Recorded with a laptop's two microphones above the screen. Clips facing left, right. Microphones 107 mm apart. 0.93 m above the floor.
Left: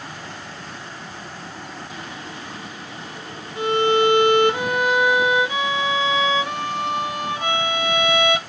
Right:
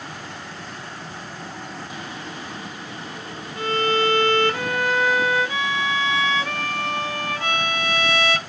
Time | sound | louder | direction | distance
3.6 | a violin | left 4 dB | 20° left (ahead or behind) | 0.5 m